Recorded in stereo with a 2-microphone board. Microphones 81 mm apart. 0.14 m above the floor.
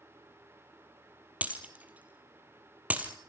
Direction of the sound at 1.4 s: 20° right (ahead or behind).